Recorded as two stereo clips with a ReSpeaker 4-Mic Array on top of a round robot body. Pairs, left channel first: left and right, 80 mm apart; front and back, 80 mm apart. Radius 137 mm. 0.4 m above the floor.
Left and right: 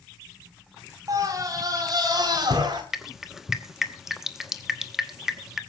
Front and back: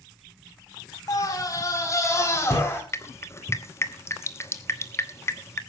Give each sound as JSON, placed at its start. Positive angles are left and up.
{"t": 1.1, "sound": "a scream", "azimuth_deg": -45, "distance_m": 3.5}
{"t": 2.9, "sound": "dripping", "azimuth_deg": -5, "distance_m": 1.5}